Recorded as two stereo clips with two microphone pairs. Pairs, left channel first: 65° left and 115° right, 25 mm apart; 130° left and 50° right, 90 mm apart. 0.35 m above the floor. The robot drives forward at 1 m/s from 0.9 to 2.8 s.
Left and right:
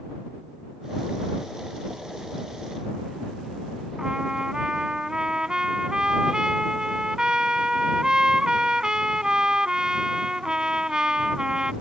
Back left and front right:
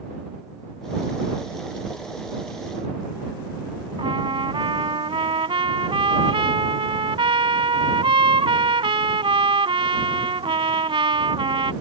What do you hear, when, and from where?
4.0 s a trumpet: 60° right